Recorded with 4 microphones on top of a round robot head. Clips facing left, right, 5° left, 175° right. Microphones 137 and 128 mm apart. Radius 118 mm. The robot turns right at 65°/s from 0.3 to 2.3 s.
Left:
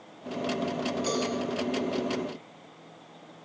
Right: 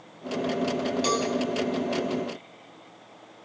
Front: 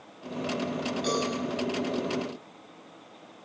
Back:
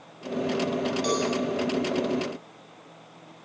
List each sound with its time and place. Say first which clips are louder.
1.0 s a cowbell: right 2 dB, back 1 dB; 115° right, 9 m; by 1.3 s 100° right, 9 m